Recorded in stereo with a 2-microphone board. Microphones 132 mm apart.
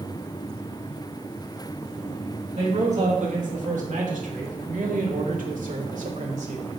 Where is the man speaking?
60° right (ahead or behind), 2.5 m; by 6.7 s 65° right (ahead or behind), 1.6 m.